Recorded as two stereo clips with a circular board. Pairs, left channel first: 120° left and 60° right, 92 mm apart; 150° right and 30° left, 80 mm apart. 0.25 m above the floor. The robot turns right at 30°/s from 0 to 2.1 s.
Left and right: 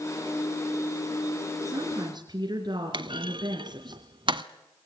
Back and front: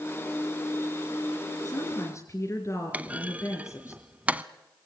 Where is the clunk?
40° right, 0.8 m.